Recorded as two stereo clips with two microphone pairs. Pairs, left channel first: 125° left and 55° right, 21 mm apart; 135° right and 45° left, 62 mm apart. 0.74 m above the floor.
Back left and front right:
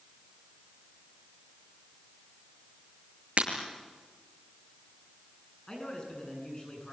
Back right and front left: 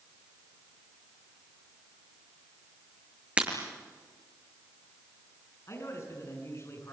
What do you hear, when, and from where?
3.4 s breaking glass: 25° right, 5 m
5.7 s a man speaking: 175° right, 8.5 m